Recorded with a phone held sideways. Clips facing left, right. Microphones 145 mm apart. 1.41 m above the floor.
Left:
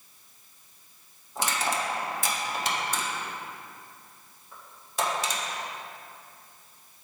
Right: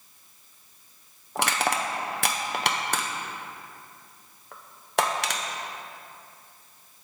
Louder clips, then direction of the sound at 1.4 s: Right 3 dB; 65° right (ahead or behind).